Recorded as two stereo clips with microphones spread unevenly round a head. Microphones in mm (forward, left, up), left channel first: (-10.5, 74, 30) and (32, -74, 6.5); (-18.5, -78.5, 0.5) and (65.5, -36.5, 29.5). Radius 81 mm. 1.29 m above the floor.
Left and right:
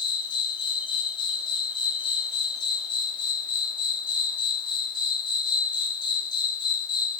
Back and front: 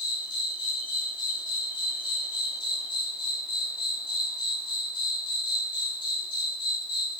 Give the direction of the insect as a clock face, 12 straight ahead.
7 o'clock.